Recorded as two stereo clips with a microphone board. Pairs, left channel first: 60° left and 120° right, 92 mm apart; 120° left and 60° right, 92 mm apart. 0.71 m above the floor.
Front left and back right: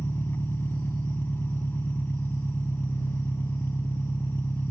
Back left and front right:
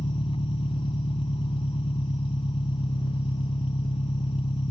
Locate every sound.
0.0 s an engine running: 125° left